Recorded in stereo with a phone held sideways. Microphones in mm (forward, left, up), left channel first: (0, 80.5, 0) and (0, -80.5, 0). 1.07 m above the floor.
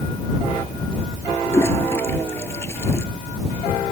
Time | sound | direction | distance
1.5 | a toilet flushing | 15° left (ahead or behind) | ?